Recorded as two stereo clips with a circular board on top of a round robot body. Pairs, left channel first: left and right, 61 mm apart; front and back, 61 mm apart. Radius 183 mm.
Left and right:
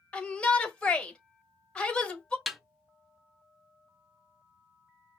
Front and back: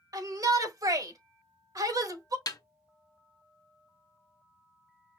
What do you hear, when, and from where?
0.1 s a shout: 165° left, 1.8 m
2.5 s a snare drum: straight ahead, 0.8 m